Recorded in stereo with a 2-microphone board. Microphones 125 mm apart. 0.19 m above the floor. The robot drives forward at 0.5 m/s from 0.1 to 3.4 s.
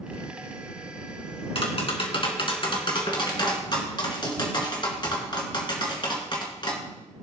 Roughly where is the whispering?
No whispering in this recording.